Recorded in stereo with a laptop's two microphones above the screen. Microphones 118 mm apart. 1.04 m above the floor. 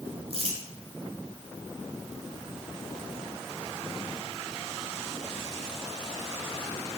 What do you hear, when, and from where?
0.3 s crumpling: 60° right (ahead or behind), 2 m